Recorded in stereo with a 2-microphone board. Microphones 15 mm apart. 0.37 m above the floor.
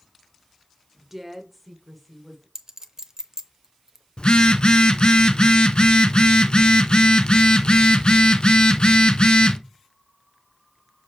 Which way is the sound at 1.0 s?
15° right (ahead or behind).